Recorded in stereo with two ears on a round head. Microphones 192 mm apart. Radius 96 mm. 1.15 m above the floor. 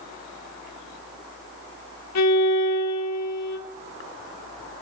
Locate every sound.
2.1 s a violin: 85° left, 2.5 m